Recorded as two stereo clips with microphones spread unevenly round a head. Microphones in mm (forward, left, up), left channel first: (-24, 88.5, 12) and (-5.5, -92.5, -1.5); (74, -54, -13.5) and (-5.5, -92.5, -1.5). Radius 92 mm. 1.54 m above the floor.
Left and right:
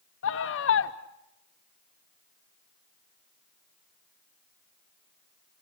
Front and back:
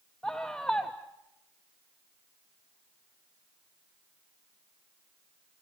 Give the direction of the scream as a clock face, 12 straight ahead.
8 o'clock.